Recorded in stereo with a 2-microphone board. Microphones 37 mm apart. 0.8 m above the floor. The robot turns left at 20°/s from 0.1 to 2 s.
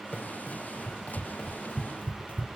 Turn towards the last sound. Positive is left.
turn(degrees=45)  # may be behind; listen again after turning